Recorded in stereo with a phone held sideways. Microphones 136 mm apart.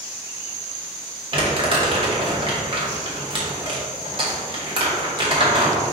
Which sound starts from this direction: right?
Crumpling, at 1.3 s.